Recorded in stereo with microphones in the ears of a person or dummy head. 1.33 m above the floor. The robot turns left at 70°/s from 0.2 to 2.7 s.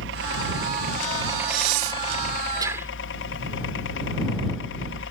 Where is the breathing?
80° right; by 2.9 s 15° right (ahead or behind).